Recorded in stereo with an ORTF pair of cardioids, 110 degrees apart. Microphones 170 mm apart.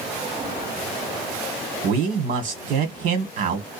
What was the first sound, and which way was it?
A man speaking, 65° right.